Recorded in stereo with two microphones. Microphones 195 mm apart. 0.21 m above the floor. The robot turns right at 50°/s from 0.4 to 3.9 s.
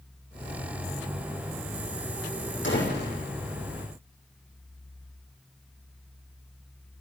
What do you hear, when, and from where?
2.6 s a door slam: 70° left (ahead or behind), 6 m; by 3.2 s 45° left (ahead or behind), 6 m